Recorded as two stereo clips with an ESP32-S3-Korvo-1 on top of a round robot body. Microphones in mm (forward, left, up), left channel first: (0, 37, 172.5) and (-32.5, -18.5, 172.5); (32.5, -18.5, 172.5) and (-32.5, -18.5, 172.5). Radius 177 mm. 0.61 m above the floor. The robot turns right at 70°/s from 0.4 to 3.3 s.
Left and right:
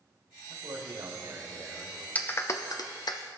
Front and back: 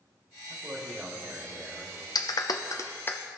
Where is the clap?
5° right, 1.0 m; by 3.2 s 65° left, 1.0 m.